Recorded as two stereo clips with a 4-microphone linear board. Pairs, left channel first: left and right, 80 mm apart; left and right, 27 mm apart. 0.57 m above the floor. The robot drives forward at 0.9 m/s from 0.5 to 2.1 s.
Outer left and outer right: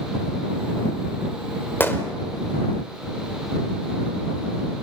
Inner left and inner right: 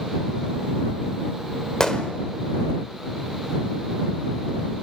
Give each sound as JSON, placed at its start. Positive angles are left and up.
{"t": 1.8, "sound": "a gunshot", "side_deg": 25, "distance_m": 1.5}